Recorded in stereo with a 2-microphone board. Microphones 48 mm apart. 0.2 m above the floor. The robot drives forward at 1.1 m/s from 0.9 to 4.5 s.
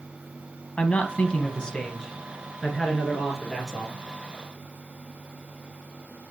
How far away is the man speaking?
About 1.1 m.